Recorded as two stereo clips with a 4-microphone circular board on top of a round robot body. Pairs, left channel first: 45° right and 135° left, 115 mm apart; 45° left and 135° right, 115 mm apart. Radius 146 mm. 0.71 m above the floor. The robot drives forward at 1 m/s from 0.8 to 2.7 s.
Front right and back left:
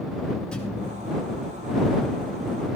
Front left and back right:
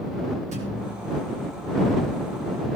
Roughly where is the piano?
No piano in this recording.